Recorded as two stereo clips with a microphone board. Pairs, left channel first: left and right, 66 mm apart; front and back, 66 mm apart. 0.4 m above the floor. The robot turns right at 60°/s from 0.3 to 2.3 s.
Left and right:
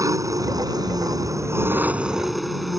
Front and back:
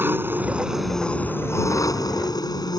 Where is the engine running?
120° right; by 2.8 s straight ahead.